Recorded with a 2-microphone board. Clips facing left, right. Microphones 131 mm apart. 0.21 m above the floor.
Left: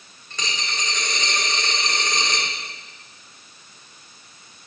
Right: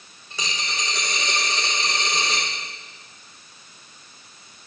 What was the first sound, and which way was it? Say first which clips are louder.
A dropped coin: even; 10° right (ahead or behind).